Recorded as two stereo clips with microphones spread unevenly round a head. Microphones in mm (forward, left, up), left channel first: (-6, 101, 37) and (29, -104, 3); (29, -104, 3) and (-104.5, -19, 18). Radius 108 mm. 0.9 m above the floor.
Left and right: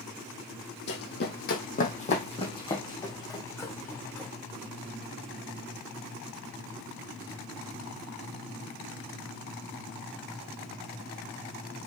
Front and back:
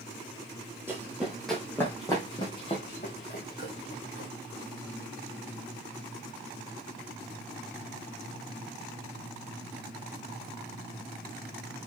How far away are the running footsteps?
About 2.5 m.